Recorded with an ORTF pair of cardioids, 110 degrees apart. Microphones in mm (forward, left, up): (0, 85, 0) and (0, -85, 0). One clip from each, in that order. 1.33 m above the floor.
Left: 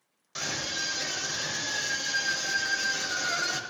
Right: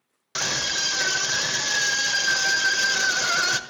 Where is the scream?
55° right, 1.2 m.